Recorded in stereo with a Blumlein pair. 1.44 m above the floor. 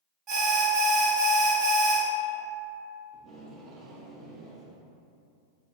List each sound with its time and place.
0.3 s an alarm: 25° right, 0.9 m
3.1 s tape being pulled: 20° right, 0.8 m